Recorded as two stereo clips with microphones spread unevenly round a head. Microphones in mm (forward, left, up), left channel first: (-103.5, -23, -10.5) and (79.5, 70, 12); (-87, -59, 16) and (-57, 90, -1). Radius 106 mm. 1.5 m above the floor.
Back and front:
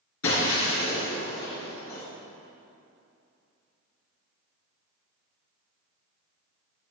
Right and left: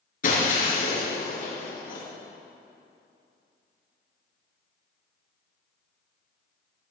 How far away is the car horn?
No car horn in this recording.